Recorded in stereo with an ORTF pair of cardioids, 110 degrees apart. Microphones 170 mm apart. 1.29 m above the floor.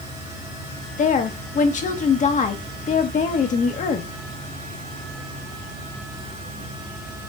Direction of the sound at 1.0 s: 45° left.